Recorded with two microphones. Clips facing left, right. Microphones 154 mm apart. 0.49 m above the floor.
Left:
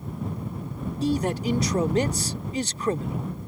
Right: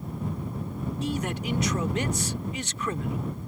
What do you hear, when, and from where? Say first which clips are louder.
1.0 s a man speaking: left 7 dB; 35° left (ahead or behind)